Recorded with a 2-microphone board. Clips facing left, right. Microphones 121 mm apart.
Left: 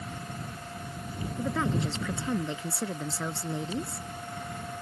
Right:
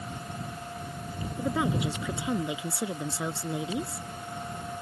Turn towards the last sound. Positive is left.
turn(degrees=-10)  # may be behind; listen again after turning